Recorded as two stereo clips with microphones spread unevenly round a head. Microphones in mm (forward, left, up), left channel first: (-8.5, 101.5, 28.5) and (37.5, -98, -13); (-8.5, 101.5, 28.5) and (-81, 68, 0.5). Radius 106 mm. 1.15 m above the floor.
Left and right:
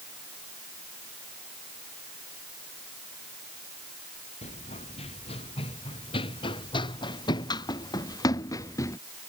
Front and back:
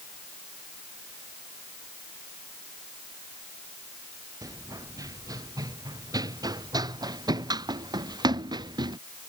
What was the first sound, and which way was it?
Running footsteps, 160° left.